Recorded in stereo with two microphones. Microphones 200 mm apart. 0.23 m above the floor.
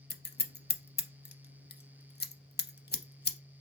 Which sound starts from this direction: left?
Scissors, at 0.1 s.